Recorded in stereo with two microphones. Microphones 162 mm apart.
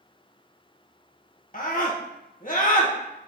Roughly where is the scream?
Left.